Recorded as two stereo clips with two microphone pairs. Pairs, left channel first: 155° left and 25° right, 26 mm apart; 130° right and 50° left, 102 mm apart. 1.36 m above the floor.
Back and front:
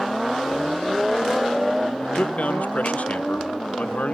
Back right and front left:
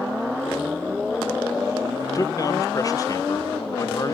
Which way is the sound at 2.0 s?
175° left.